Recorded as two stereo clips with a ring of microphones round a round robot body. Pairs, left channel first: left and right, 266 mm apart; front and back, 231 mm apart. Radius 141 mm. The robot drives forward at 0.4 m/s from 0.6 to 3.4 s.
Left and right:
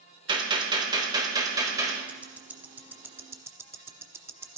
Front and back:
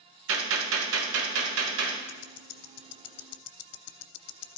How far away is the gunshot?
About 1.2 m.